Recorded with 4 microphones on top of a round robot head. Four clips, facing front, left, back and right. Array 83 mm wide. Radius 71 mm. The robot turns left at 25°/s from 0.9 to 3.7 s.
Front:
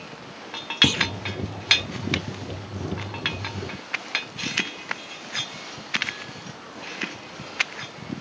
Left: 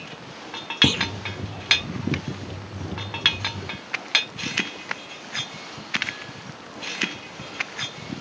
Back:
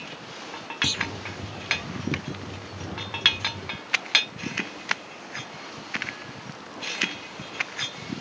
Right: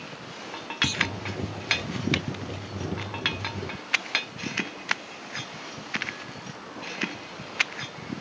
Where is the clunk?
55° left.